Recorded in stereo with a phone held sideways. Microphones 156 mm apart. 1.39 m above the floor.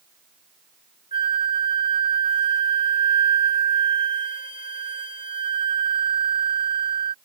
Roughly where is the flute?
Left.